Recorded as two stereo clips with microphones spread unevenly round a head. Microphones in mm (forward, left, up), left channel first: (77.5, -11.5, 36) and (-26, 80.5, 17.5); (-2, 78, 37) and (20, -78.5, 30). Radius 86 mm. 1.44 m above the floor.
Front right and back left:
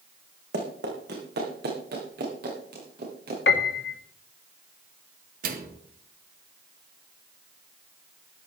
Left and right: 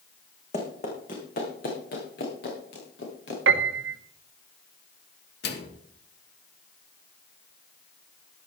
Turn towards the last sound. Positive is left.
turn(degrees=125)